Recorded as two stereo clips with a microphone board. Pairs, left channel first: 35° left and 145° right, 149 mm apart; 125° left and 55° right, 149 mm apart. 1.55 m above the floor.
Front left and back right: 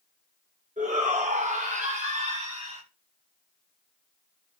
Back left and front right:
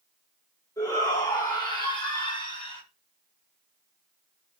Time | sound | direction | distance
0.8 | a shout | 170° right | 7 m